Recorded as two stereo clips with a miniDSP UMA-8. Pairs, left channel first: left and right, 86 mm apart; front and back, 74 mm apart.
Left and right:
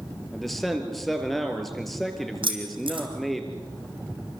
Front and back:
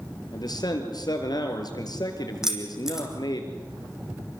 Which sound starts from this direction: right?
Keys jangling, at 2.4 s.